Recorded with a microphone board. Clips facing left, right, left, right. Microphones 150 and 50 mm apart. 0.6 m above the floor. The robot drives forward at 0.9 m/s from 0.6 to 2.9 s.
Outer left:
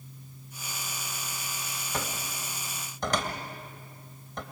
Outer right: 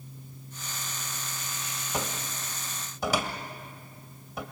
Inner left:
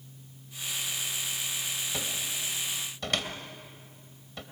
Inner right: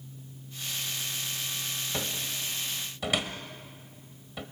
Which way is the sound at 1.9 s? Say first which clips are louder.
Outer right 2 dB, inner right 1 dB; 15° right (ahead or behind).